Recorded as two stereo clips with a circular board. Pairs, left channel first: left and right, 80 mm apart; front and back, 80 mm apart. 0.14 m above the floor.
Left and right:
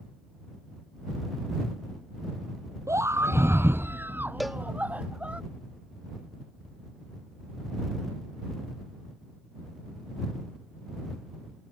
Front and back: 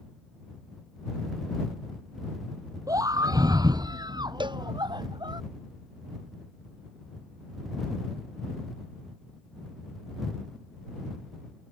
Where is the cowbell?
Straight behind.